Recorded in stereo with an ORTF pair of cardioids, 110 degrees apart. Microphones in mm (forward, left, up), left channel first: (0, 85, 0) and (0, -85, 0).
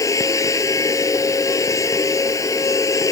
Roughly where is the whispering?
I don't hear whispering.